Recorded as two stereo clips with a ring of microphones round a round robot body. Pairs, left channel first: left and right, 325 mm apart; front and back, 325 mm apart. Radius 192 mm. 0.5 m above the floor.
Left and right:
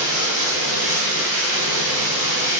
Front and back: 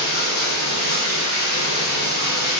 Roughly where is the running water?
Ahead right.